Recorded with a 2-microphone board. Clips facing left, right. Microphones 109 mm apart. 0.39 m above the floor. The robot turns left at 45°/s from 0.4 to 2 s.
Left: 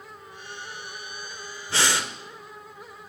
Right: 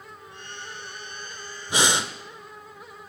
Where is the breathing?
15° right (ahead or behind), 0.6 m; by 2.1 s 20° right (ahead or behind), 0.6 m.